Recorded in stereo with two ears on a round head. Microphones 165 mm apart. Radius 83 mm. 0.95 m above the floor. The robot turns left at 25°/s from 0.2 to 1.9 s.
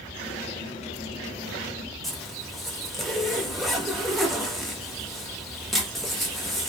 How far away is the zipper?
About 0.6 m.